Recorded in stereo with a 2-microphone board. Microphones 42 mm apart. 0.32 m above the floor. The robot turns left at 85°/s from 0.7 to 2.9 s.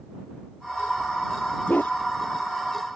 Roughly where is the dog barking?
Left.